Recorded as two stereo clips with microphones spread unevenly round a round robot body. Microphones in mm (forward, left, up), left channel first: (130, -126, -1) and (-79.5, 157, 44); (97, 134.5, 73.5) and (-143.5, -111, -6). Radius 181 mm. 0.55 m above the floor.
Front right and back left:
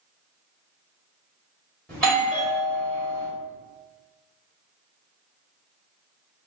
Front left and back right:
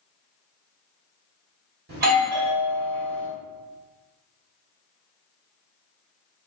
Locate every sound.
1.9 s a doorbell: 130° right, 1.4 m